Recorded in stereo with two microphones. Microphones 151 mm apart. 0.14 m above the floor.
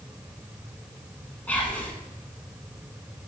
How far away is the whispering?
About 1.0 m.